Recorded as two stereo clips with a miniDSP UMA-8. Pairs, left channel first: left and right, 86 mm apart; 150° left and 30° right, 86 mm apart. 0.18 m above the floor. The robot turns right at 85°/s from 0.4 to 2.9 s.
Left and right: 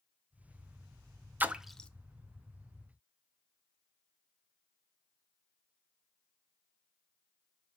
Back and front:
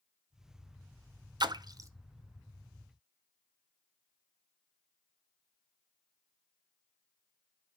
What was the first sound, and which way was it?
A splash, 25° right.